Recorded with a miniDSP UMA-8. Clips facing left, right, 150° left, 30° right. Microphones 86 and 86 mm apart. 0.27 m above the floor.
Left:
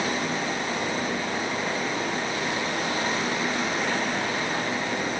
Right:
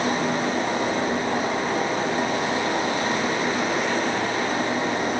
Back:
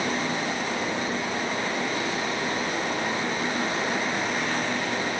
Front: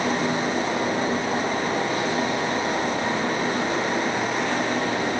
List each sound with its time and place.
Only background noise.